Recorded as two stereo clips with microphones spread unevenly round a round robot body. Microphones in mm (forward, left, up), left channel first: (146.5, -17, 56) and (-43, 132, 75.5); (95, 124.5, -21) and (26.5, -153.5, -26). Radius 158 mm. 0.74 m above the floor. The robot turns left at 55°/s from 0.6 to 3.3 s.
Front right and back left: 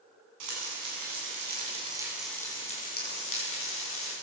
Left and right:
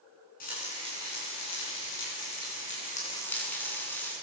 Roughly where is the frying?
Behind left.